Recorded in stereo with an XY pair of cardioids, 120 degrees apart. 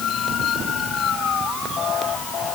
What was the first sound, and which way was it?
Only background noise.